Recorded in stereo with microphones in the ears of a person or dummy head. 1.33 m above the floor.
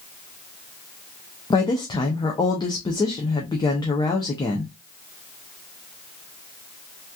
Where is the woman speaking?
20° left (ahead or behind), 0.6 m.